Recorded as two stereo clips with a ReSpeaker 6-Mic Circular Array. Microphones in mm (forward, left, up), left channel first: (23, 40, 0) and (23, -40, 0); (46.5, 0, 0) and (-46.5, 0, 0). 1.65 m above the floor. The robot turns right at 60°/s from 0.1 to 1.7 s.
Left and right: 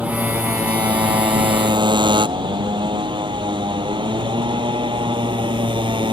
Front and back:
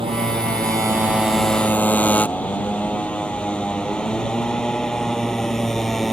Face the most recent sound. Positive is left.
turn(degrees=-90)